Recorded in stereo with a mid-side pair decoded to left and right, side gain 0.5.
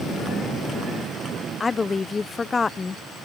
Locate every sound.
1.6 s a woman speaking: 25° left